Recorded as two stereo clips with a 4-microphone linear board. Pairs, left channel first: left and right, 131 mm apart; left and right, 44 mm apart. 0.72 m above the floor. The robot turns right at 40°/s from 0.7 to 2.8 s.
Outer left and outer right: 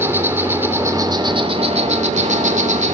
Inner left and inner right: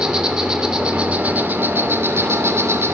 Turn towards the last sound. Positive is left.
turn(degrees=-80)